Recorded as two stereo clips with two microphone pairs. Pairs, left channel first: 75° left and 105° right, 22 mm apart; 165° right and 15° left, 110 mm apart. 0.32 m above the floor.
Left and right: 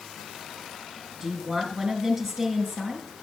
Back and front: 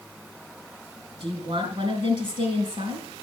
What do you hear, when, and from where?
1.2 s a woman speaking: 25° right, 4 m